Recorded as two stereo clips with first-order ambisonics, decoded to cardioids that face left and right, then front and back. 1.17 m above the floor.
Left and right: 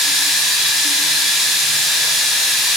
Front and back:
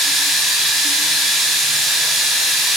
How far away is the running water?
About 0.9 m.